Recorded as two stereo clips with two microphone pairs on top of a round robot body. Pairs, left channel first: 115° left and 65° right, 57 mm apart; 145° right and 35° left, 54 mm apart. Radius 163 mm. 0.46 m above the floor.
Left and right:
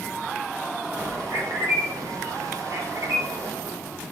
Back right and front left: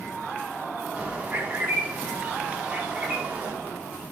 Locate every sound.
1.0 s a bird: 35° right, 3.5 m